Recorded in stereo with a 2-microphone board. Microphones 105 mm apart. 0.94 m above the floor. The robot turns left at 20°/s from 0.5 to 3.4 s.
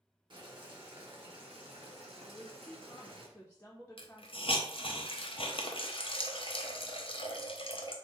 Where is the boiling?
60° right, 1.2 m; by 3.3 s 115° right, 1.2 m.